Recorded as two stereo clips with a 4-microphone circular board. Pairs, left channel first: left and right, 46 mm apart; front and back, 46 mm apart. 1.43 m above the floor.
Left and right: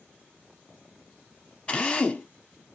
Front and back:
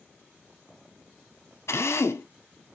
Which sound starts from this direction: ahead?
A drill, at 1.7 s.